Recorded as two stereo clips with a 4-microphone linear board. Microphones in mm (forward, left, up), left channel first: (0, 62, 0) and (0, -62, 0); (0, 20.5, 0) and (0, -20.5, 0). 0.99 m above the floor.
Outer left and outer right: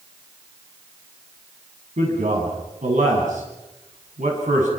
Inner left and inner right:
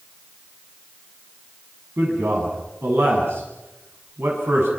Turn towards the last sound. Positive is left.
turn(degrees=-85)